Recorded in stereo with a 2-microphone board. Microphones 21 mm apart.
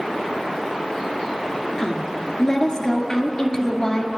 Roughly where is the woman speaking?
Left.